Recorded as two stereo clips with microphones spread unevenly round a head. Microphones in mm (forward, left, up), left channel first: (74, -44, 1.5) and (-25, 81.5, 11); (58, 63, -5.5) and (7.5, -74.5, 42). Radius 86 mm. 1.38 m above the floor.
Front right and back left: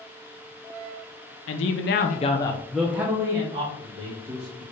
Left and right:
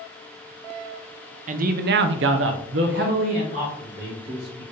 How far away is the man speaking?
About 0.7 m.